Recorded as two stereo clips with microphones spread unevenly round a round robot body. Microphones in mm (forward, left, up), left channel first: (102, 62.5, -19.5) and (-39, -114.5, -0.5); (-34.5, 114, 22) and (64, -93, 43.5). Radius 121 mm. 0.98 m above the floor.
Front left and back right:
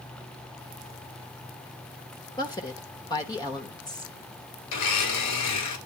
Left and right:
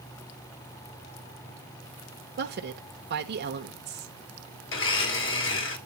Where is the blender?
80° left, 1.9 m.